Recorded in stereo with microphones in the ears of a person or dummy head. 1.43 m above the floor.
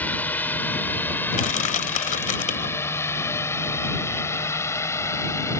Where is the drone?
5° left (ahead or behind); by 5.6 s 15° left (ahead or behind).